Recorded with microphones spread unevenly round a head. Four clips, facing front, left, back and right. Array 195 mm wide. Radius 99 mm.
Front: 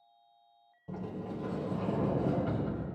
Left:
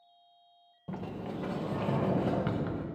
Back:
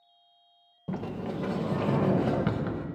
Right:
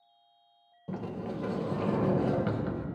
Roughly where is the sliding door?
Behind.